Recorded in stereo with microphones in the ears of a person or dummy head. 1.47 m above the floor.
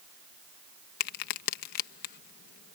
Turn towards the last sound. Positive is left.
turn(degrees=55)  # may be behind; listen again after turning